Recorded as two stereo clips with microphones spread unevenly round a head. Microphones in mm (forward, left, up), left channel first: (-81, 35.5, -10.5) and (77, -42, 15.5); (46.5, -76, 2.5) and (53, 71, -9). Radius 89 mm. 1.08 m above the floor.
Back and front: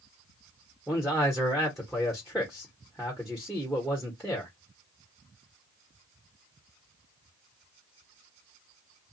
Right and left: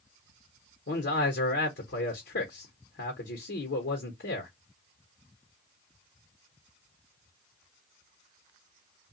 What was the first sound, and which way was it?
A man speaking, 115° right.